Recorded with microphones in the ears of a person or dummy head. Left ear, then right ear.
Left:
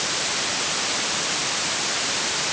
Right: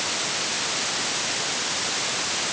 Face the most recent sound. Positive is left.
No sound to turn to.